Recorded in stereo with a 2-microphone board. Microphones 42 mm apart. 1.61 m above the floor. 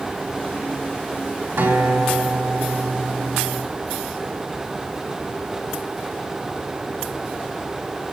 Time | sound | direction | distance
1.6 | a guitar | 80° right | 4 m